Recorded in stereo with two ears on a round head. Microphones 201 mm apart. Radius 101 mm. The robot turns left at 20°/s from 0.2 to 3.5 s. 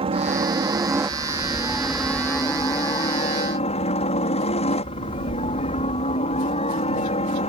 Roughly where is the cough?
No cough in this recording.